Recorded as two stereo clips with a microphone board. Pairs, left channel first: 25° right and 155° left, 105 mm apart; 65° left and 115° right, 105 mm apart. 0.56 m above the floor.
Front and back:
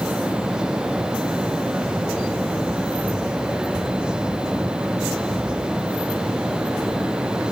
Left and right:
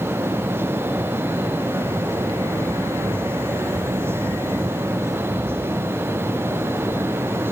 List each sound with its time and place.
Only background noise.